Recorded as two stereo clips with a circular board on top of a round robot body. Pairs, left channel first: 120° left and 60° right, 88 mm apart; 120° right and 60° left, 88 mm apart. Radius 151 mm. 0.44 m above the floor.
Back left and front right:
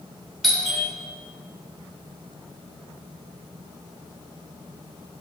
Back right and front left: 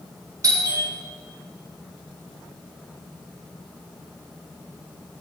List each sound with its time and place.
0.4 s a doorbell: 30° left, 2 m